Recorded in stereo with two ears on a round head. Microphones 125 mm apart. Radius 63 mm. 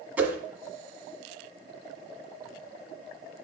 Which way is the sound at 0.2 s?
10° right (ahead or behind).